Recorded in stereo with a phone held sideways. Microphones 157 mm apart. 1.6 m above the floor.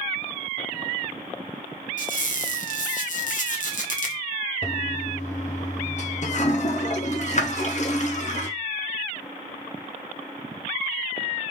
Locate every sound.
2.0 s a squeak: 55° left (ahead or behind), 0.8 m
4.6 s a toilet flushing: 50° left (ahead or behind), 0.7 m